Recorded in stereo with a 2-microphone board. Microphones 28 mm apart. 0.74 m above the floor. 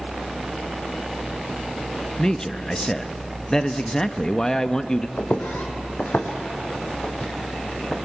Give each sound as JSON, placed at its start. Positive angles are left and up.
{"t": 2.2, "sound": "a man speaking", "side_deg": 20, "distance_m": 0.6}
{"t": 5.2, "sound": "footsteps", "side_deg": 75, "distance_m": 2.5}